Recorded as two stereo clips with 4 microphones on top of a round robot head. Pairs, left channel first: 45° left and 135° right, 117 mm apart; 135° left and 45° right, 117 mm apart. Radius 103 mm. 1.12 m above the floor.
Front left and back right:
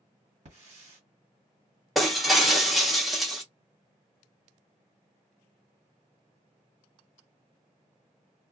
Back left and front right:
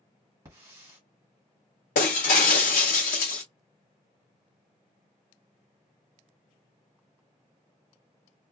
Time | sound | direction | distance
0.5 | a hiss | 105° right | 1.7 m
1.9 | breaking glass | 135° left | 0.7 m